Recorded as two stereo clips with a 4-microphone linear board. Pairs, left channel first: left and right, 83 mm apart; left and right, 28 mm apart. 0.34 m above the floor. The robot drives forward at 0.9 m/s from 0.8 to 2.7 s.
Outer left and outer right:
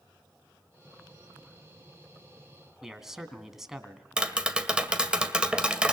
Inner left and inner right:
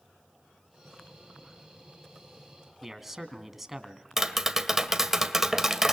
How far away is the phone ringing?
No phone ringing in this recording.